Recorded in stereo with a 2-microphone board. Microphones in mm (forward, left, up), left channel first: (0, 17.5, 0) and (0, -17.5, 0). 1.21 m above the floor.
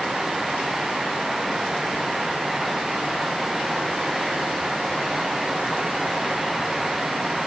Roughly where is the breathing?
No breathing in this recording.